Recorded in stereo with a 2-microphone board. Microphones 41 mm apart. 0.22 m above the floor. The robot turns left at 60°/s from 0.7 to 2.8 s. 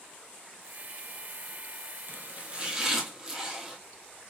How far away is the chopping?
About 1.1 m.